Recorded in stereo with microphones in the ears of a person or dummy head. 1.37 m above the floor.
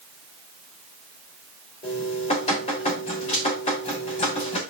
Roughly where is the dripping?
Left.